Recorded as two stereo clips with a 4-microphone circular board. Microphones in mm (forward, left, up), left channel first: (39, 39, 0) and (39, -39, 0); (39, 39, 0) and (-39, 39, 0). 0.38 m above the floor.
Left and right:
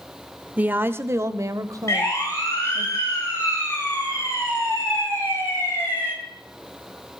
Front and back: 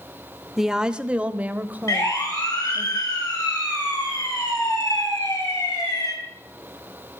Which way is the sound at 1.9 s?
40° left.